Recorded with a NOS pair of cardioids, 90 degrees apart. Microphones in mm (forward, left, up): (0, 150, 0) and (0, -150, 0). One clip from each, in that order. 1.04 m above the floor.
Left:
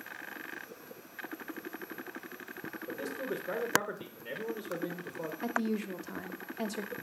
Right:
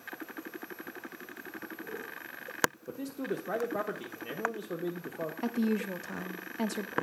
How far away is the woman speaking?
About 0.7 m.